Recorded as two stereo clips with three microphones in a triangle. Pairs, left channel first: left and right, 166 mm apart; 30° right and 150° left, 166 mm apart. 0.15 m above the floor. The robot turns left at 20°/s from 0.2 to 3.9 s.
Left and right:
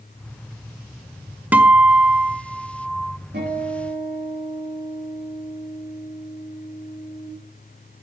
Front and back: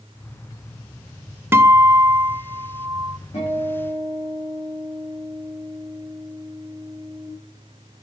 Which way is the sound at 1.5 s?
155° right.